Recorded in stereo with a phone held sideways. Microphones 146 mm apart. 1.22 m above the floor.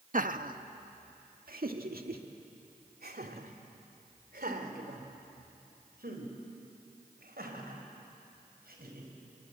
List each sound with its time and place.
0.1 s laughter: 60° right (ahead or behind), 1.2 m; by 9.1 s 80° right, 6 m